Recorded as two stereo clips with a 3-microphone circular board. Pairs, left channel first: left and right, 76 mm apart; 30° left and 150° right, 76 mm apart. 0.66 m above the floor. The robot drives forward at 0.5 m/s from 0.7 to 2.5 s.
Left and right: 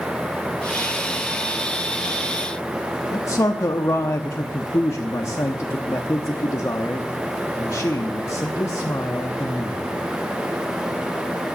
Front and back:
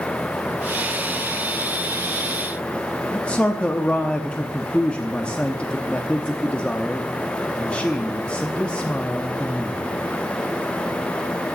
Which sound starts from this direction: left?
A man speaking, at 3.1 s.